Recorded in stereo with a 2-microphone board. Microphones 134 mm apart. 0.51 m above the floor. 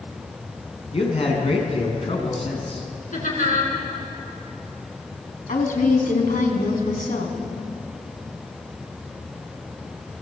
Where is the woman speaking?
80° left, 4.5 m.